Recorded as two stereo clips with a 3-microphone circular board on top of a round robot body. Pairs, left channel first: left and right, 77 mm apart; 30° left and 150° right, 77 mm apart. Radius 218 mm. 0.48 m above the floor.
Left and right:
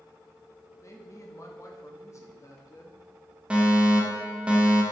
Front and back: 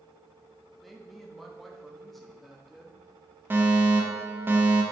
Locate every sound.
0.8 s a woman speaking: 120° left, 1.6 m
3.5 s a fire alarm: 150° right, 1.7 m